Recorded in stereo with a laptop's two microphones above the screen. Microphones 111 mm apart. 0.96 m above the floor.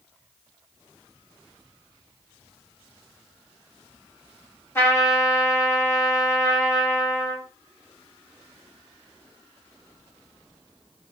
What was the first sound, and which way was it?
A trumpet, 20° left (ahead or behind).